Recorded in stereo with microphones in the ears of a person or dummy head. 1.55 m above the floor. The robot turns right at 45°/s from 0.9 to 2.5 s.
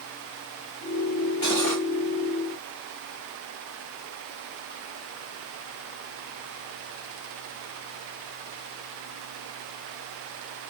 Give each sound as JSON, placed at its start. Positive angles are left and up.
{"t": 1.4, "sound": "cutlery clinking", "side_deg": 30, "distance_m": 1.5}